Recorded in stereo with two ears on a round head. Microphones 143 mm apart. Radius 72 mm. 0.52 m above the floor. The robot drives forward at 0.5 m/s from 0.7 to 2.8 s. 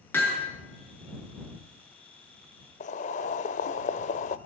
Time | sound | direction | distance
0.1 | hammering | 15° left (ahead or behind) | 6 m
2.8 | boiling | 45° left (ahead or behind) | 0.8 m